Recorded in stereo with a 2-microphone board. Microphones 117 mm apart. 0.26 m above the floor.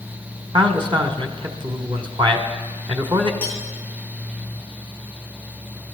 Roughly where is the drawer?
No drawer in this recording.